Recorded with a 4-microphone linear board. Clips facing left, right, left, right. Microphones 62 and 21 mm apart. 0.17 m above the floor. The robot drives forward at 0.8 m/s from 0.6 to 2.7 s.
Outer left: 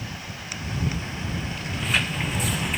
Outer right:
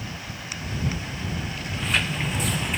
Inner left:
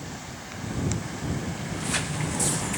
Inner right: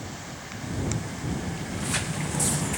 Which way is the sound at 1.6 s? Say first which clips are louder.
Even, inner left 1 dB; centre (ahead or behind).